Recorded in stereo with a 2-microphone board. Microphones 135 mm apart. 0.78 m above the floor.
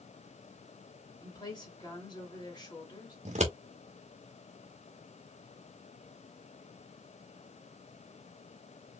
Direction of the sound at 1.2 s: 35° left (ahead or behind).